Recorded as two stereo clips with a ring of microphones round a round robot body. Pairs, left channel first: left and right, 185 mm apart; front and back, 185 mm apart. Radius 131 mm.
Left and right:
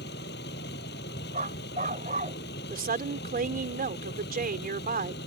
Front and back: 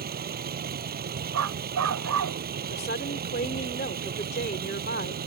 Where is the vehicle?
145° left.